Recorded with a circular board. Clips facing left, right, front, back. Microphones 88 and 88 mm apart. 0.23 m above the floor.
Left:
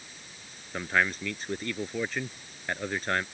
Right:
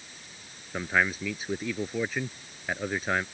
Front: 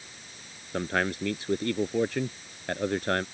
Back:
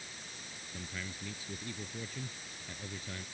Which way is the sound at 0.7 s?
5° right.